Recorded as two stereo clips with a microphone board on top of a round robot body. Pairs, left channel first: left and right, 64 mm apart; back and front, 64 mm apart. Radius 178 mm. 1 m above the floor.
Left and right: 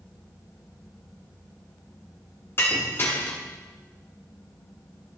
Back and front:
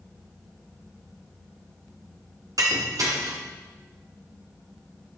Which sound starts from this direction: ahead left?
Breaking glass, at 2.6 s.